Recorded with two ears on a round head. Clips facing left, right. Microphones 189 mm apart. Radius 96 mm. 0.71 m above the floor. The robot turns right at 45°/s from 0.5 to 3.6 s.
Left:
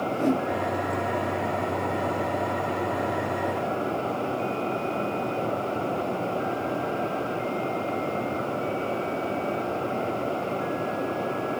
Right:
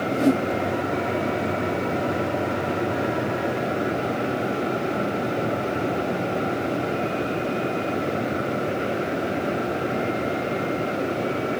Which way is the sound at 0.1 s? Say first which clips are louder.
Right 5 dB; 45° right (ahead or behind).